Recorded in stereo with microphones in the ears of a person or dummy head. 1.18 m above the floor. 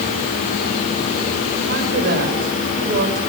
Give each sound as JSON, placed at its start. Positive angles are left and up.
{"t": 1.7, "sound": "a woman speaking", "side_deg": -50, "distance_m": 4.5}